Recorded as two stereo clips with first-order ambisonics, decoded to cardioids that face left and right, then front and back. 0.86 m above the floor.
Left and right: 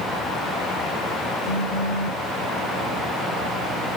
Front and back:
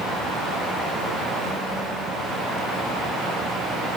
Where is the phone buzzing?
80° left, 1.3 m.